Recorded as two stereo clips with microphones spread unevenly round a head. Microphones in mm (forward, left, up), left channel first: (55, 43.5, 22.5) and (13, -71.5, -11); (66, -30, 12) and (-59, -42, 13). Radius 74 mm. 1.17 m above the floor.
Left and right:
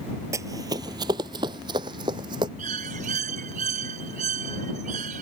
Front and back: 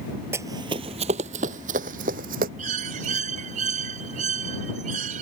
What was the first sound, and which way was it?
Running footsteps, straight behind.